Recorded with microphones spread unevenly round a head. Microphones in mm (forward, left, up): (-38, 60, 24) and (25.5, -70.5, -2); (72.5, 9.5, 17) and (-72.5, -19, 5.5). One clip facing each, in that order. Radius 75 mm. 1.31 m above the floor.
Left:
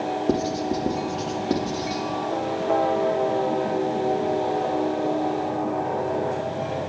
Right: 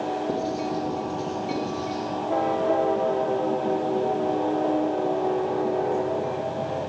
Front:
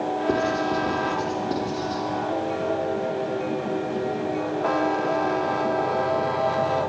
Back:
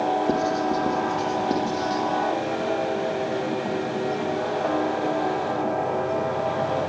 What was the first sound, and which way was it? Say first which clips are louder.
Writing: left 3 dB, even; 125° left.